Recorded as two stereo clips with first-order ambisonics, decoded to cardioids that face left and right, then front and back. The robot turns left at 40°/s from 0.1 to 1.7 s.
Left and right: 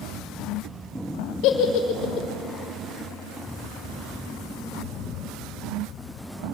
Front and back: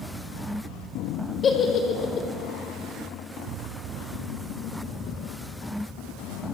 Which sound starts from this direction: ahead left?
A giggle, at 1.4 s.